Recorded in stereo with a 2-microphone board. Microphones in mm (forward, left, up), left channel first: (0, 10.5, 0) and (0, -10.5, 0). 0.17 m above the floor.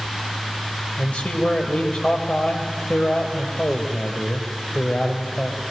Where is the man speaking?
60° left (ahead or behind), 3.5 m.